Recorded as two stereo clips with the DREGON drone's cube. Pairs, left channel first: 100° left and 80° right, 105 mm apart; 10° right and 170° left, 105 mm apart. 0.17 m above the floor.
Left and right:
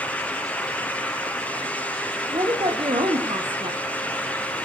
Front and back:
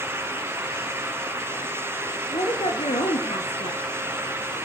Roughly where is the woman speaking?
Ahead right.